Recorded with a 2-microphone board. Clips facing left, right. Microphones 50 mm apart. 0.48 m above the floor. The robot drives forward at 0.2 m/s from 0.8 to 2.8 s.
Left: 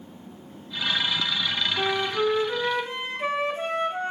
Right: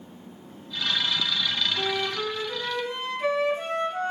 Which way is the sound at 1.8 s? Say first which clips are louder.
Left 3 dB; 35° left (ahead or behind).